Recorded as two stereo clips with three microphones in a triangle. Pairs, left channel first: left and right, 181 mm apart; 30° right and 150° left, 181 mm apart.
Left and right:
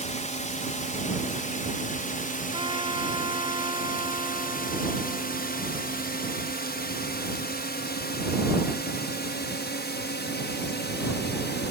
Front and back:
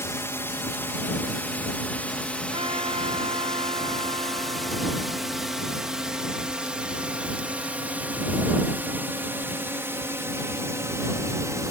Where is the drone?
45° left; by 11.7 s 75° left.